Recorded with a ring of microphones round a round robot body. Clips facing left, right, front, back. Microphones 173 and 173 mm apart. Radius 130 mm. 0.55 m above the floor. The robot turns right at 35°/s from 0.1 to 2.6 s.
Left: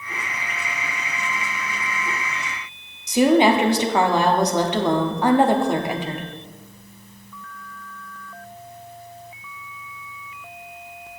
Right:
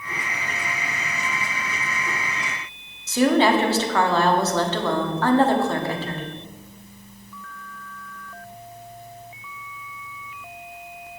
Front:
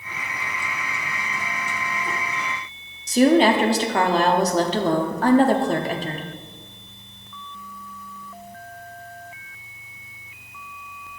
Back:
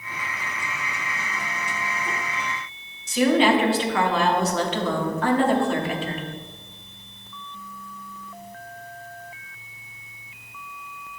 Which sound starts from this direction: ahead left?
A woman speaking, at 3.1 s.